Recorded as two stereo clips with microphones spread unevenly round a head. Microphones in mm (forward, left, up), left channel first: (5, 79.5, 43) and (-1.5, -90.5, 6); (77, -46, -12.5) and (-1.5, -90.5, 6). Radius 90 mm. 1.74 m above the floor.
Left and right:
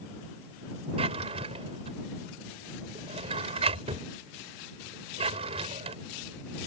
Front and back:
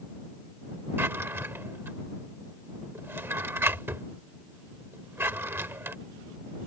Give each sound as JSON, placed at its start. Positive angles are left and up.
{"t": 1.0, "sound": "a drawer", "azimuth_deg": -150}